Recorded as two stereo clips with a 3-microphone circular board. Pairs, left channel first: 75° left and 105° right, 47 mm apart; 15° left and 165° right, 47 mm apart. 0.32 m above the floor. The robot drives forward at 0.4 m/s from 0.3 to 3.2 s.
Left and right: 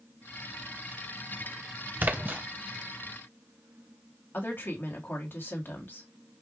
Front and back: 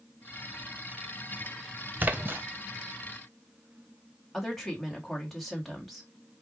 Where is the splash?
135° right, 0.8 m; by 2.4 s 145° right, 0.9 m.